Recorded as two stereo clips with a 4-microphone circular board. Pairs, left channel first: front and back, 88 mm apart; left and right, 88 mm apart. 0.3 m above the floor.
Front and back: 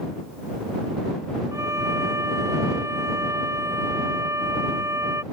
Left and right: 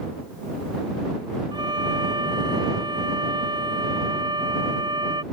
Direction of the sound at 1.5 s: 125° right.